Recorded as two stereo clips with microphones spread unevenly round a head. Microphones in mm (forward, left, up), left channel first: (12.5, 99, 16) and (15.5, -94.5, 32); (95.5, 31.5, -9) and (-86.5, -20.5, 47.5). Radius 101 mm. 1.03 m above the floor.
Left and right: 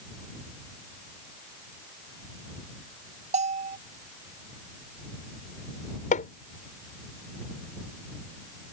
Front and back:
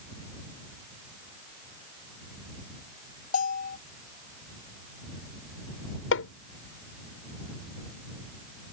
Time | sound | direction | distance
3.3 | a bell | 35° right | ?
6.1 | hammering | 40° left | ?